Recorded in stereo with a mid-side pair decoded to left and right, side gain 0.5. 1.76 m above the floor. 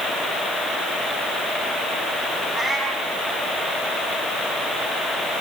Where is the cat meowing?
25° right, 8.5 m.